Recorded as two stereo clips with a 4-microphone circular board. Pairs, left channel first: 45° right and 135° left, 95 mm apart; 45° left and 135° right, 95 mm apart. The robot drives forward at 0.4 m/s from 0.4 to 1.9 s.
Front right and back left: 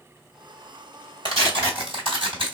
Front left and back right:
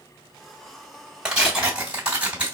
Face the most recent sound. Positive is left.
turn(degrees=150)